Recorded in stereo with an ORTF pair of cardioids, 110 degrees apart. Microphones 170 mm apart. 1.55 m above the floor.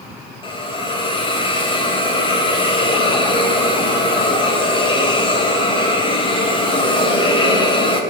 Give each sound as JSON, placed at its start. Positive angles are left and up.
{"t": 0.4, "sound": "a hiss", "azimuth_deg": 30, "distance_m": 3.5}